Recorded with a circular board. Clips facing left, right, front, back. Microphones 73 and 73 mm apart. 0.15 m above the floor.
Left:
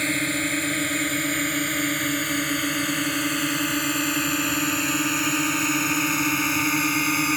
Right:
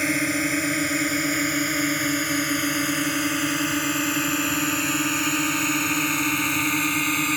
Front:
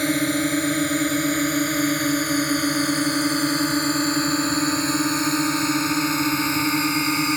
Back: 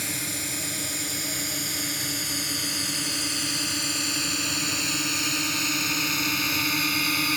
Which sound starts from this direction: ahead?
A drone, at 0.0 s.